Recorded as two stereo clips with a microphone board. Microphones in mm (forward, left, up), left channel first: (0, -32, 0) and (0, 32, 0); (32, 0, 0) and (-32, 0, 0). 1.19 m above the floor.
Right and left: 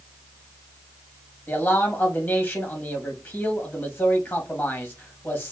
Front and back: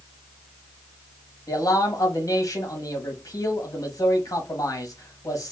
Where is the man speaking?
30° right, 1.8 m.